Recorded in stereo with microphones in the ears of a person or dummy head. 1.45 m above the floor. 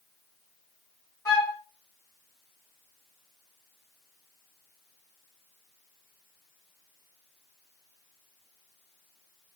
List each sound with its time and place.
1.2 s a flute: 15° left (ahead or behind), 1.6 m